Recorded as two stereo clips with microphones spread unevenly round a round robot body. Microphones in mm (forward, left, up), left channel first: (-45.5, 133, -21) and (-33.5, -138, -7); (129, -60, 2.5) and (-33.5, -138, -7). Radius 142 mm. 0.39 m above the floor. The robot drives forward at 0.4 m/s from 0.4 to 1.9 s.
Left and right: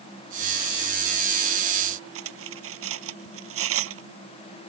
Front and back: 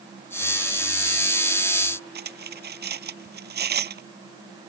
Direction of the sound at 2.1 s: 125° right.